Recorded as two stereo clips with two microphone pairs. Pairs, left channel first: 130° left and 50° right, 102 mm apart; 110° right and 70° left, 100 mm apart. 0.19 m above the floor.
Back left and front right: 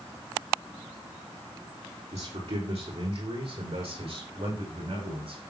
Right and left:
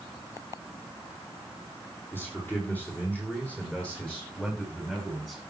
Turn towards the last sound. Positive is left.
turn(degrees=-25)